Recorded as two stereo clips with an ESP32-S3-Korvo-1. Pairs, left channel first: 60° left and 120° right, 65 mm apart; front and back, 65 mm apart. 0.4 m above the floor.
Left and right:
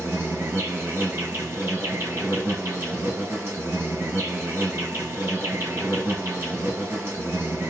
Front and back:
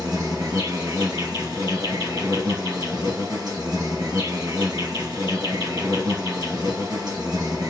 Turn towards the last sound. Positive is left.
turn(degrees=-170)